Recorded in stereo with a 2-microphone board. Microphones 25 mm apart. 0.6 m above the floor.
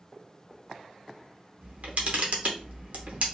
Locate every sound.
1.6 s a camera shutter: 70° right (ahead or behind), 0.7 m